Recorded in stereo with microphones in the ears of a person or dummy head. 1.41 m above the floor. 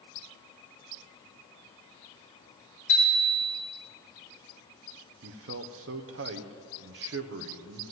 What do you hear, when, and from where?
2.9 s a bicycle bell: 30° left (ahead or behind), 3 m
5.2 s a man speaking: 60° right (ahead or behind), 0.9 m